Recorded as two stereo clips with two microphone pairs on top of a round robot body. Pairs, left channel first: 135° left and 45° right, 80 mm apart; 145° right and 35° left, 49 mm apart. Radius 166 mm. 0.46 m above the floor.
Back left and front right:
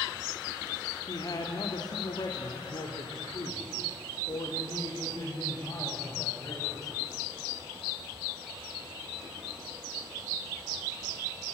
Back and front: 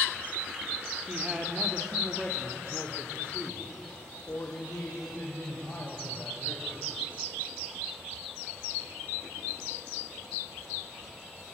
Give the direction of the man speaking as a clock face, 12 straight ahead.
9 o'clock.